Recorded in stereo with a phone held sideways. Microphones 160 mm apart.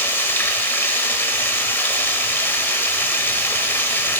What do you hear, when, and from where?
0.0 s running water: 15° left (ahead or behind), 0.8 m